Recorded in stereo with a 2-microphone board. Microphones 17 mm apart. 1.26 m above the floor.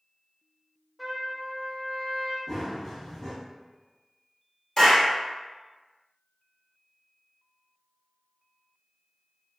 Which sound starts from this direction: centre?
A trumpet, at 1.0 s.